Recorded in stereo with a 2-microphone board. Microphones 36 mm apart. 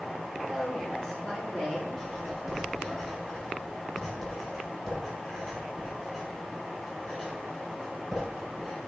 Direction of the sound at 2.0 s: 5° left (ahead or behind).